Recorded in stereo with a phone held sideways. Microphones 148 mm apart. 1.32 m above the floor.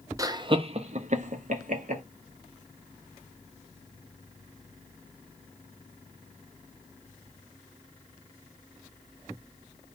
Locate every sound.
0.2 s laughter: 25° right (ahead or behind), 0.6 m; by 2.0 s 60° right (ahead or behind), 1.0 m